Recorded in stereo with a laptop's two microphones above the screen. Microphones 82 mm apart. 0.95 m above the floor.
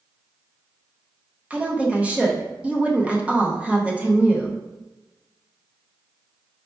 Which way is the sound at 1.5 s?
15° right (ahead or behind).